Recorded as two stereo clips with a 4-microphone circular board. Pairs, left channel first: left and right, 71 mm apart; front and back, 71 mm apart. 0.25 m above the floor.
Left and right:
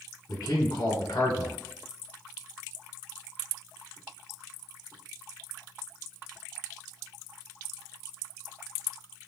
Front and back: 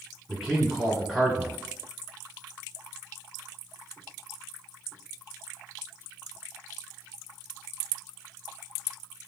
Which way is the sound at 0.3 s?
95° left.